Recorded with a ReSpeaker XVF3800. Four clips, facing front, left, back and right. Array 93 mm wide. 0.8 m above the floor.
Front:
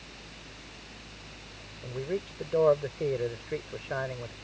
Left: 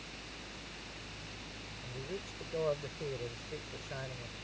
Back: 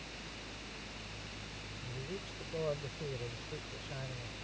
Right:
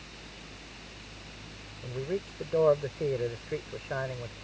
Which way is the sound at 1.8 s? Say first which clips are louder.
Right 10 dB, front 12 dB; 35° right.